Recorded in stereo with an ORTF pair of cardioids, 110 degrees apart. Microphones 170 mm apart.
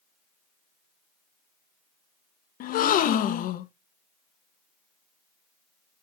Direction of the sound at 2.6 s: 55° left.